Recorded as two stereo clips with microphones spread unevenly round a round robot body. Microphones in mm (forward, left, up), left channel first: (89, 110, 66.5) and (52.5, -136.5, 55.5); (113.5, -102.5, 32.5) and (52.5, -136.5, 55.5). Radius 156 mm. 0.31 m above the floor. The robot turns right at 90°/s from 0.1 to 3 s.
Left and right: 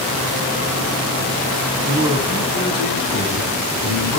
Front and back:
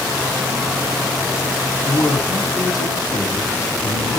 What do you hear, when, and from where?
1.8 s a man speaking: 45° right, 4 m; by 4.2 s 60° left, 4 m